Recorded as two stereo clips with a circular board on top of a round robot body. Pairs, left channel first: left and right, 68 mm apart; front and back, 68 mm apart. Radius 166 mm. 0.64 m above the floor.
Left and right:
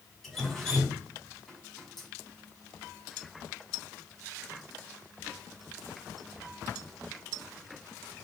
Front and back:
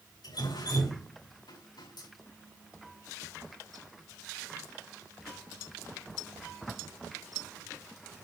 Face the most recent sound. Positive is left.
turn(degrees=5)